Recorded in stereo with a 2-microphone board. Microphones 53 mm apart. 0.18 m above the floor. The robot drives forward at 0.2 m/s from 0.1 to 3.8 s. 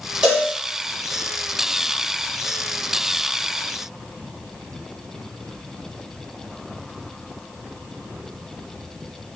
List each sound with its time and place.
0.2 s a cowbell: 20° right (ahead or behind), 2.5 m